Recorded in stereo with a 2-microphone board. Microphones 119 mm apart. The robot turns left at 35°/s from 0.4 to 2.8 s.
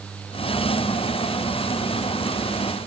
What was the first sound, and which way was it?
Only background noise.